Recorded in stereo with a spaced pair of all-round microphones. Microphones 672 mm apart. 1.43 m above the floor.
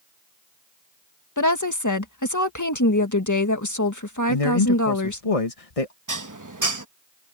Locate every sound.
1.4 s a woman speaking: 25° left (ahead or behind)
4.3 s a man speaking: 55° left (ahead or behind)
6.1 s dishes clattering: 25° right (ahead or behind)